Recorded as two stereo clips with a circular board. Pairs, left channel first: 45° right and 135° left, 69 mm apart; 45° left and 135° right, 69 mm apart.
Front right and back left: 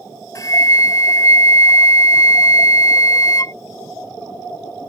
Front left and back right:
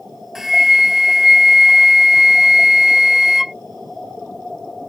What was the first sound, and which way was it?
A flute, 50° right.